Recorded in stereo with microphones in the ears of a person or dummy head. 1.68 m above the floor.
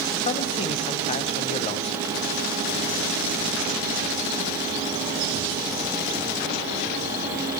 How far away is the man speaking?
About 1.0 m.